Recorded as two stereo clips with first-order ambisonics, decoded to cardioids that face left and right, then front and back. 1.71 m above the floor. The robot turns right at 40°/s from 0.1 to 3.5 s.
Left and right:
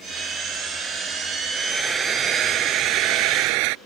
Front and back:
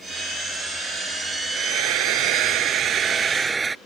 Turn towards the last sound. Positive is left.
turn(degrees=-105)